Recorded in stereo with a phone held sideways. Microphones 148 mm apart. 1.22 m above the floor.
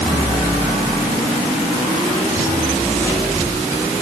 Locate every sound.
Only background noise.